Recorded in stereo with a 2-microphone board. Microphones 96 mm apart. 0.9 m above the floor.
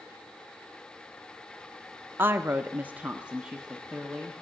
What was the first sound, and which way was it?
A woman speaking, 25° right (ahead or behind).